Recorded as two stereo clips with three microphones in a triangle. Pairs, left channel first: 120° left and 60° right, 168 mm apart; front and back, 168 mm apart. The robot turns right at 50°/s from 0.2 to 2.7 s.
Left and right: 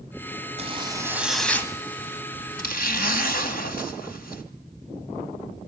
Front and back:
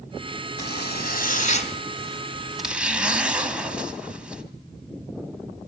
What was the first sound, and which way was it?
A zipper, 10° right.